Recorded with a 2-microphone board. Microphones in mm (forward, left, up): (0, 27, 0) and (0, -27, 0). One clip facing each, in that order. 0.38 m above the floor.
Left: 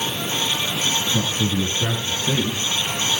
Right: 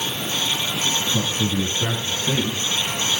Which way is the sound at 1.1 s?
10° right (ahead or behind).